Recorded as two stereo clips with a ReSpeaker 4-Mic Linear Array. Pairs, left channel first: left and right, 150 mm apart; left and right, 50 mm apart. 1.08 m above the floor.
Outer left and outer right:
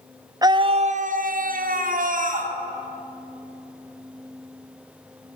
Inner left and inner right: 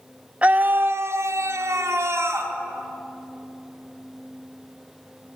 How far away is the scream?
About 0.6 m.